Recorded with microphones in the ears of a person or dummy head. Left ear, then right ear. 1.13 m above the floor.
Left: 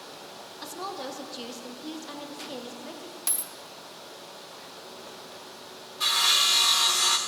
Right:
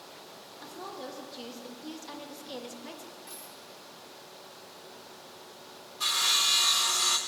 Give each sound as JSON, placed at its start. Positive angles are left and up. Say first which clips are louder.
{"t": 0.6, "sound": "a woman speaking", "louder": "left 6 dB", "side_deg": 25, "distance_m": 1.3}
{"t": 3.3, "sound": "a dropped coin", "louder": "left 9 dB", "side_deg": 50, "distance_m": 0.9}
{"t": 6.0, "sound": "sawing", "louder": "left 4 dB", "side_deg": 0, "distance_m": 0.6}